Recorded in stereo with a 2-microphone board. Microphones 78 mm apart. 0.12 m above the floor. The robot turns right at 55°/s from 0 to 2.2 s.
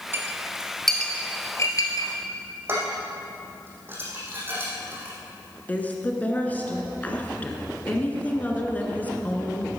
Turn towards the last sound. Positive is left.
turn(degrees=20)  # may be behind; listen again after turning